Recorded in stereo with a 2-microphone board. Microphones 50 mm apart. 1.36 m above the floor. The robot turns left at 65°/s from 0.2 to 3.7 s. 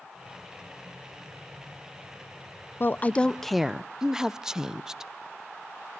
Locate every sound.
2.8 s a woman speaking: 45° left, 0.6 m; by 5.1 s 15° right, 0.6 m